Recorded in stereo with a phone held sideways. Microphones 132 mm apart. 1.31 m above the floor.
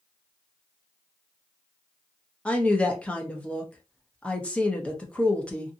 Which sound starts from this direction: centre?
A woman speaking, at 2.5 s.